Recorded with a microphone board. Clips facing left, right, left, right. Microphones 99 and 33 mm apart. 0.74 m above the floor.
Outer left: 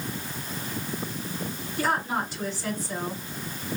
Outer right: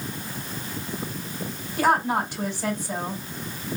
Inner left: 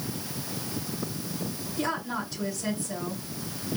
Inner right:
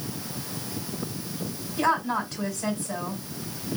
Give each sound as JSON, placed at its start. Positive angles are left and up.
{"t": 1.8, "sound": "a woman speaking", "side_deg": -60, "distance_m": 4.5}